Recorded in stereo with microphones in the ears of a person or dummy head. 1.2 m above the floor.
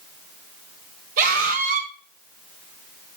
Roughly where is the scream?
Right.